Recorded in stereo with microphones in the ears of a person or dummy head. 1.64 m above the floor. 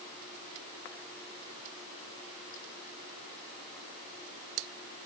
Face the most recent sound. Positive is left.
No sound to turn to.